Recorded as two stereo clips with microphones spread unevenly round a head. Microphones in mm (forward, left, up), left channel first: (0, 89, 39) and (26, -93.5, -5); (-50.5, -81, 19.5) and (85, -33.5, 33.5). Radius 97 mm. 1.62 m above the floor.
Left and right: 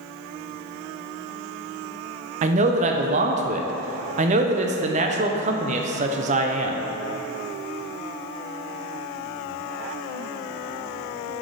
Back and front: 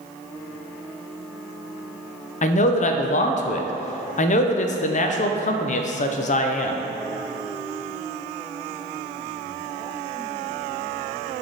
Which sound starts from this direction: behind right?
A man speaking, at 2.4 s.